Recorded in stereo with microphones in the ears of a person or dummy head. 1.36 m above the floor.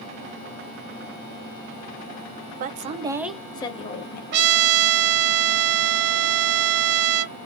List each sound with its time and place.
2.6 s a woman speaking: 50° right (ahead or behind), 0.6 m; by 4.2 s 45° left (ahead or behind), 0.8 m
4.3 s a trumpet: 50° right (ahead or behind), 0.8 m